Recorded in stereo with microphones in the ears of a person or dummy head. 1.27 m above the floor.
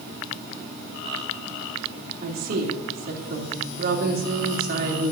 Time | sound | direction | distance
2.2 | a woman speaking | 50° right (ahead or behind) | 3 m